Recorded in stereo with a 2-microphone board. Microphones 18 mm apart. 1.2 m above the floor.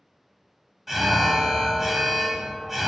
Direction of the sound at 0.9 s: 10° right (ahead or behind).